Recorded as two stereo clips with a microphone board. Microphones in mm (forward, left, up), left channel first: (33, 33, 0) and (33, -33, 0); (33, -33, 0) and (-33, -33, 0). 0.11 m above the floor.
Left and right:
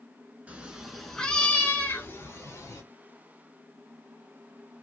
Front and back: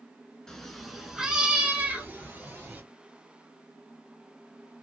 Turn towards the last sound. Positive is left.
turn(degrees=125)